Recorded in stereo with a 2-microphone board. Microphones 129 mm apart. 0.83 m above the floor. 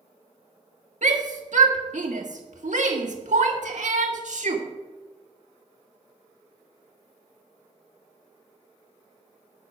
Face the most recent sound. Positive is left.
turn(degrees=-70)  # may be behind; listen again after turning